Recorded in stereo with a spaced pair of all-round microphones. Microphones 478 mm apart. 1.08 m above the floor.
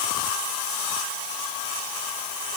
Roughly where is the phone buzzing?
No phone buzzing in this recording.